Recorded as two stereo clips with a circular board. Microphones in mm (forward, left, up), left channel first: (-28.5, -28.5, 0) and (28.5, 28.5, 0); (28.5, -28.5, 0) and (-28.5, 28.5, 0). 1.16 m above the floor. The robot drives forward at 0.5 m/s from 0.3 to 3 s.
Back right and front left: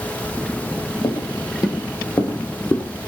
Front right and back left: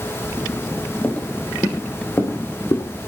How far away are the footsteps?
About 2.5 m.